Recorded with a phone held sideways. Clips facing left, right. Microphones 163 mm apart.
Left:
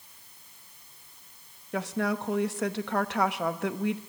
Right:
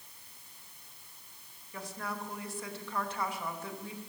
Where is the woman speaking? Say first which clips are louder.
Left 11 dB; 75° left (ahead or behind), 0.9 m.